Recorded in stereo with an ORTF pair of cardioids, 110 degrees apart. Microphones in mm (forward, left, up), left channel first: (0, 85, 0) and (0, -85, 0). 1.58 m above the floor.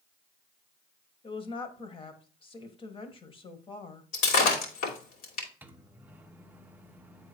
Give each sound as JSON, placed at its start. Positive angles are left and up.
{"t": 1.2, "sound": "a woman speaking", "azimuth_deg": 30, "distance_m": 1.6}
{"t": 4.1, "sound": "breaking glass", "azimuth_deg": 65, "distance_m": 3.0}
{"t": 5.6, "sound": "a microwave", "azimuth_deg": -10, "distance_m": 0.9}